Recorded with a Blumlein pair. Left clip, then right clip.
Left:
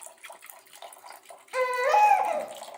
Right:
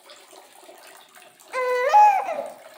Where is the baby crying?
10° right, 1.2 m.